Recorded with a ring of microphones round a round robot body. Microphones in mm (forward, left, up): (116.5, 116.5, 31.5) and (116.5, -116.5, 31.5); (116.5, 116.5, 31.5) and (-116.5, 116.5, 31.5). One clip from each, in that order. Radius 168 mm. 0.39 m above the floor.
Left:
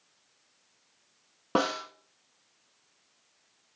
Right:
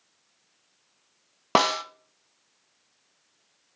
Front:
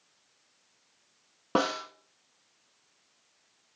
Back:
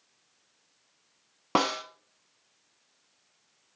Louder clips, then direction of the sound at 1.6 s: Right 6 dB, back 2 dB; 115° right.